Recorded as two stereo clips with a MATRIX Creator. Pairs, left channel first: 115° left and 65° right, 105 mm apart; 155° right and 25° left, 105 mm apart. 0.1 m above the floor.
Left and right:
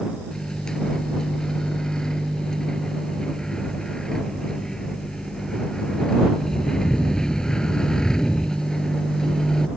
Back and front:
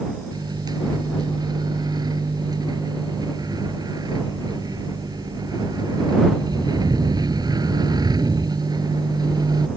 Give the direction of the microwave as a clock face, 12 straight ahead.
11 o'clock.